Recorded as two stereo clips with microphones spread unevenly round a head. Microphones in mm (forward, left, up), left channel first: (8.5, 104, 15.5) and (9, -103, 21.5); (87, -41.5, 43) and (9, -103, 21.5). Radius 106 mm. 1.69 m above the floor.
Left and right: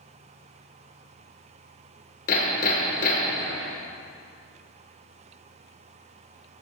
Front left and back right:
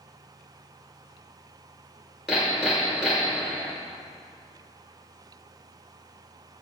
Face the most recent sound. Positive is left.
turn(degrees=110)